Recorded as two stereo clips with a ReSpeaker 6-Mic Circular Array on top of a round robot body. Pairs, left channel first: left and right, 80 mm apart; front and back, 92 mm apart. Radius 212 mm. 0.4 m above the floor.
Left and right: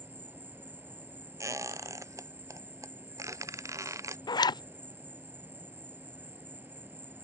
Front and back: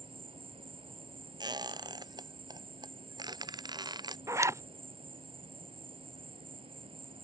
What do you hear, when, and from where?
0.0 s an insect: 160° right
1.4 s a squeak: 140° right
4.3 s a zipper: 120° left